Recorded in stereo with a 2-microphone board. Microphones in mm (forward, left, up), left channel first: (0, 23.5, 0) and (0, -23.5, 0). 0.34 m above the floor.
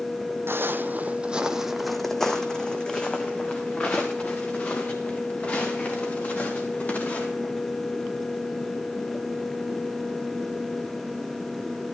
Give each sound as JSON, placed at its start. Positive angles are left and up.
{"t": 0.5, "sound": "footsteps", "side_deg": -60, "distance_m": 0.7}